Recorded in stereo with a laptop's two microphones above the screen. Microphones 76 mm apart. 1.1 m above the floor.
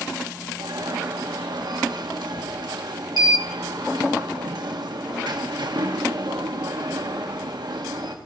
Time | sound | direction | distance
0.6 | an alarm | 70° right (ahead or behind) | 1.3 m